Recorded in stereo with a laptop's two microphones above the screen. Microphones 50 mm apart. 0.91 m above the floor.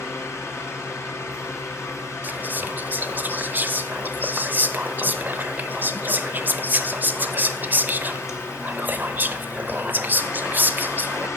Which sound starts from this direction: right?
Whispering, at 2.2 s.